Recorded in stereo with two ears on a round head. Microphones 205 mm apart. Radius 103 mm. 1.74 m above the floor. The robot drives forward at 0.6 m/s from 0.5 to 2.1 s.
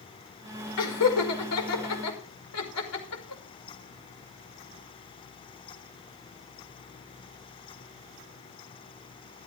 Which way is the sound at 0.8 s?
80° left.